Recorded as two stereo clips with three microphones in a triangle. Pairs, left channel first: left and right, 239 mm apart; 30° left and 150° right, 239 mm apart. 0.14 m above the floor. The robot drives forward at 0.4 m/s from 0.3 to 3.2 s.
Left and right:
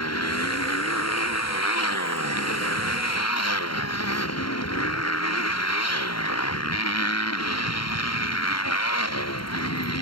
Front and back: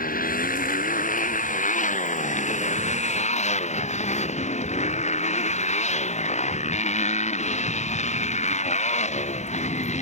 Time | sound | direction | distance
0.0 | a motorcycle | 85° left | ?